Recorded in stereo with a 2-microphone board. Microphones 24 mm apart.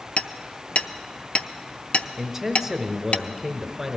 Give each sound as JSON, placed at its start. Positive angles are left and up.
{"t": 0.2, "sound": "hammering", "side_deg": 55, "distance_m": 0.5}
{"t": 2.2, "sound": "a man speaking", "side_deg": -20, "distance_m": 1.1}